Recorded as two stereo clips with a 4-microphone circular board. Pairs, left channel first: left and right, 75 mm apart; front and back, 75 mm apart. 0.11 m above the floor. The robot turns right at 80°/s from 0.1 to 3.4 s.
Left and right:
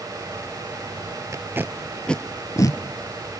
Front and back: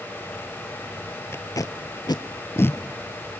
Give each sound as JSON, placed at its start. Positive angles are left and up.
{"t": 1.3, "sound": "tape being pulled", "azimuth_deg": -50, "distance_m": 0.8}